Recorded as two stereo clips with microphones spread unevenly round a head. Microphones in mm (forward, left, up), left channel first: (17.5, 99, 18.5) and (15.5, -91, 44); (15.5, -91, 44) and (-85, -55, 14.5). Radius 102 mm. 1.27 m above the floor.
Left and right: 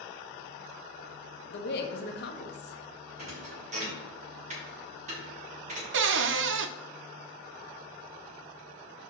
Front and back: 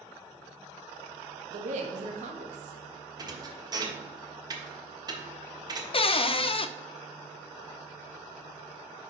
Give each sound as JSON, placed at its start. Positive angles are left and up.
{"t": 1.5, "sound": "a woman speaking", "azimuth_deg": 130, "distance_m": 1.0}
{"t": 3.2, "sound": "a thud", "azimuth_deg": -145, "distance_m": 1.6}
{"t": 5.9, "sound": "a cupboard door", "azimuth_deg": -65, "distance_m": 0.5}